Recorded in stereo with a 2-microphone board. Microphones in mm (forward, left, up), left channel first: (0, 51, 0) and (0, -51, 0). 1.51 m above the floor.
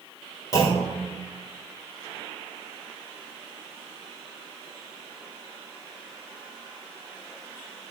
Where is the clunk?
30° left (ahead or behind), 4 m.